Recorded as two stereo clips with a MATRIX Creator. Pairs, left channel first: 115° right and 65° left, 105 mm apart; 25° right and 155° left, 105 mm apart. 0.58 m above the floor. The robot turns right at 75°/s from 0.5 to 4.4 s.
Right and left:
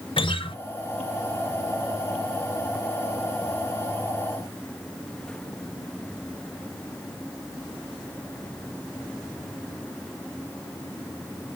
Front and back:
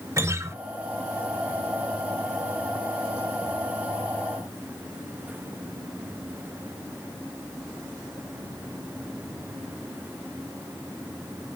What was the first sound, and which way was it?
A guitar, 140° right.